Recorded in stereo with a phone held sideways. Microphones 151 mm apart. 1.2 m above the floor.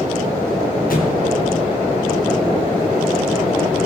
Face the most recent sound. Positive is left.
turn(degrees=70)  # may be behind; listen again after turning